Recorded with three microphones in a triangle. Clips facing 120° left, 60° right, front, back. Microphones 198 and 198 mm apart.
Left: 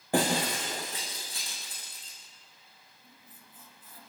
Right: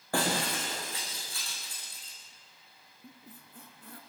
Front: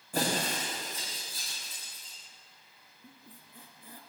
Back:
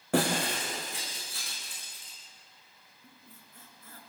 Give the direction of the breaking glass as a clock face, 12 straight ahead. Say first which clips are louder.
Left 4 dB, back 4 dB; 6 o'clock.